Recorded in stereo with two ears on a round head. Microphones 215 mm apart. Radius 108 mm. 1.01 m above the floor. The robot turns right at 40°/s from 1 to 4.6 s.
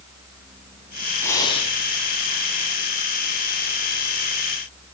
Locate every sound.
1.2 s breathing: 10° left (ahead or behind), 3 m; by 1.8 s 30° left (ahead or behind), 3 m